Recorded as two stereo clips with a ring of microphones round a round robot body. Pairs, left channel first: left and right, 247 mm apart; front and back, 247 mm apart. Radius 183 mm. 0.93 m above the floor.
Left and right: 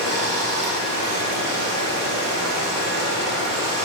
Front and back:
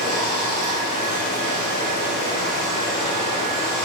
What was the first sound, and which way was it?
Running water, 75° right.